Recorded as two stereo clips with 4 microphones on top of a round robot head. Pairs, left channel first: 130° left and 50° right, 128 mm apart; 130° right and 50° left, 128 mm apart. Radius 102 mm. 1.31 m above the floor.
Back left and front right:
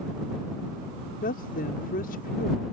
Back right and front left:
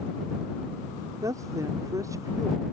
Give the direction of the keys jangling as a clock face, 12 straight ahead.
I don't hear keys jangling.